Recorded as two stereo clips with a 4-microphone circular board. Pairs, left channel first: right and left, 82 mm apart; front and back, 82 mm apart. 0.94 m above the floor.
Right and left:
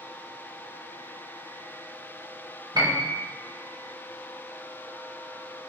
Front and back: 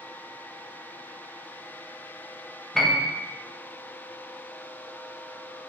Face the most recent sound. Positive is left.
turn(degrees=90)